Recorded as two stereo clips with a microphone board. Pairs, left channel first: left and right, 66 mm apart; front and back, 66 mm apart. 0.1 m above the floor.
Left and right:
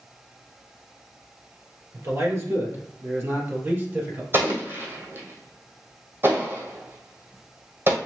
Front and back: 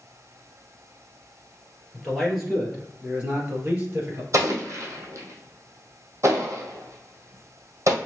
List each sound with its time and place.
1.9 s a man speaking: 85° right, 2.0 m; by 4.2 s 135° right, 2 m
4.3 s an explosion: 140° right, 1.4 m